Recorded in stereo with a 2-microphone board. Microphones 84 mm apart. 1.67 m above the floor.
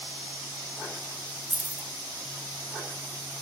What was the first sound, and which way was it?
Keys jangling, 20° right (ahead or behind).